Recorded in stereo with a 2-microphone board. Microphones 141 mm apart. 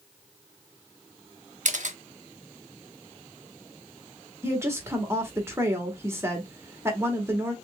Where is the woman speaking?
20° right (ahead or behind), 1.3 m.